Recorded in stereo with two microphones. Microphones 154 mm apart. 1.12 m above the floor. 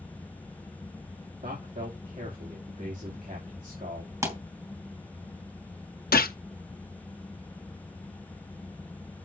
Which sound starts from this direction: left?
A gunshot, at 6.1 s.